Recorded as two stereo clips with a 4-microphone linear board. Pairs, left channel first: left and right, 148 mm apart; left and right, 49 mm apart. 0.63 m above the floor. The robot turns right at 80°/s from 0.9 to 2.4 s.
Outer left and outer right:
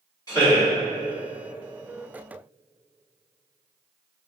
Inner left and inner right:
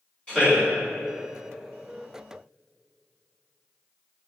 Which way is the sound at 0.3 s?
25° left (ahead or behind).